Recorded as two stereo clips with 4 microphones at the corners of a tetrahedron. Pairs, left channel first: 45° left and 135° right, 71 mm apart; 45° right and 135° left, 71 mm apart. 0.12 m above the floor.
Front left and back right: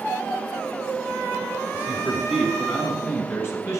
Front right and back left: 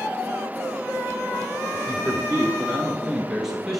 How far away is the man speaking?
About 1.2 m.